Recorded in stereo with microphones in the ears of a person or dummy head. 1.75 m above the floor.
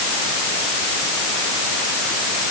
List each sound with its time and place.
Only background noise.